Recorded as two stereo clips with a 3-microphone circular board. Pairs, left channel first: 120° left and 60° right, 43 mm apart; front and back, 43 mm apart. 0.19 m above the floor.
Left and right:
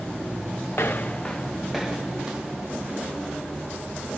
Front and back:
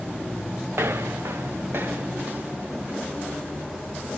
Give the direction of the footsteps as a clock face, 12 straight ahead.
7 o'clock.